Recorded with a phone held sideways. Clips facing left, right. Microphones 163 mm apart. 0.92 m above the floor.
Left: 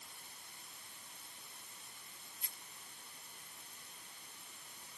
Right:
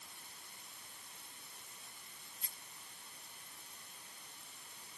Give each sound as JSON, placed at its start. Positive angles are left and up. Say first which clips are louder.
{"t": 2.4, "sound": "a rattle", "louder": "even", "side_deg": -35, "distance_m": 1.2}